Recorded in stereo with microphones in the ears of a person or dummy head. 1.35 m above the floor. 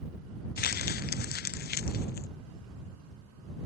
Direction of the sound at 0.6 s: 55° left (ahead or behind).